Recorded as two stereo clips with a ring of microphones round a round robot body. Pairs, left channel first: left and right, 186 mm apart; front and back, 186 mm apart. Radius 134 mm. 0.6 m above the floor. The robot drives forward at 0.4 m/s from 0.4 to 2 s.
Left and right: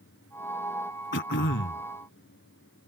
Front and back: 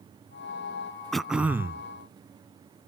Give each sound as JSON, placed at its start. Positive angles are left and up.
{"t": 1.1, "sound": "throat clearing", "azimuth_deg": 85}